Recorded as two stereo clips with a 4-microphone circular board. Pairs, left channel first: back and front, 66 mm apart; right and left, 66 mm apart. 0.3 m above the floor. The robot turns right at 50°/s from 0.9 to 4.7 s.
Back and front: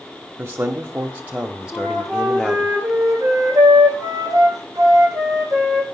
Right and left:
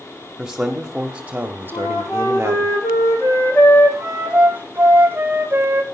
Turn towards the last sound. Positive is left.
turn(degrees=35)